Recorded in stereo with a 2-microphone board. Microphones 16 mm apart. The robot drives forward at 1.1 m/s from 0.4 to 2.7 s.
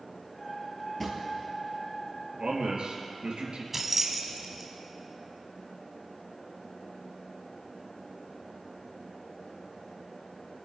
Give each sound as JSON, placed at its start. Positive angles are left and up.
{"t": 1.0, "sound": "a drawer", "side_deg": 10, "distance_m": 2.5}
{"t": 2.4, "sound": "a man speaking", "side_deg": -65, "distance_m": 4.0}
{"t": 3.7, "sound": "keys jangling", "side_deg": -20, "distance_m": 1.3}